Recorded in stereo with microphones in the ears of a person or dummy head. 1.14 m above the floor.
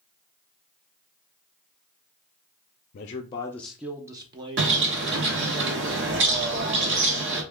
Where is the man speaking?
50° left (ahead or behind), 0.6 m; by 5.6 s 40° right (ahead or behind), 1.6 m.